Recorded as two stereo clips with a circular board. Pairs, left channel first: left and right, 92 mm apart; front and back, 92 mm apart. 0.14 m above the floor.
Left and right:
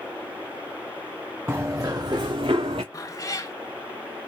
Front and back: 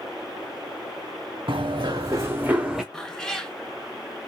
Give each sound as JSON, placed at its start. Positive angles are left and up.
{"t": 1.5, "sound": "running footsteps", "azimuth_deg": -150, "distance_m": 1.0}
{"t": 2.9, "sound": "a cat meowing", "azimuth_deg": 80, "distance_m": 0.7}